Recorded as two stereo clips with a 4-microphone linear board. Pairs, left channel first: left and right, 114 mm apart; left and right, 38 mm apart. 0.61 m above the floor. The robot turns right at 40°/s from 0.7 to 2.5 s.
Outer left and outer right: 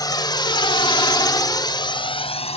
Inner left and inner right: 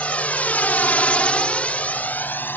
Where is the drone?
35° left (ahead or behind); by 2.6 s 60° left (ahead or behind).